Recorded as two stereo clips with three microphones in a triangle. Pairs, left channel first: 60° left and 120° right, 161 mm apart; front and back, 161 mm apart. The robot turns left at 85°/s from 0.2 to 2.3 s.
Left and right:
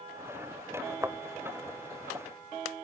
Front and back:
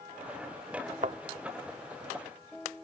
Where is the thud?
175° left; by 1.2 s 160° left.